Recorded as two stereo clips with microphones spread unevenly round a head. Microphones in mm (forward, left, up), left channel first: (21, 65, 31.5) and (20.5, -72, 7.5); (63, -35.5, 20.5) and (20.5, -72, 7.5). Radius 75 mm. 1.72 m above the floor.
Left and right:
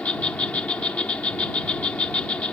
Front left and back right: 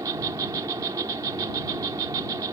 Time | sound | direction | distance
0.0 | an insect | 165° left | ?